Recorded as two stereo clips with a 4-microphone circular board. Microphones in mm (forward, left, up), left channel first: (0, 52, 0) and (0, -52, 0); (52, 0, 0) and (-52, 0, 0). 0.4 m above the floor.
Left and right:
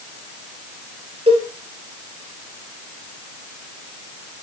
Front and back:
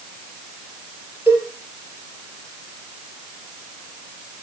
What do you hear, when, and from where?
1.3 s a cowbell: 115° right, 3 m